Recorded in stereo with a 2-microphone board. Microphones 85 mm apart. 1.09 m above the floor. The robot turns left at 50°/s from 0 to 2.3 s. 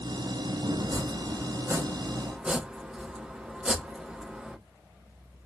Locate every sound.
0.8 s chopping: 55° right (ahead or behind), 0.9 m; by 4.6 s 15° right (ahead or behind), 0.9 m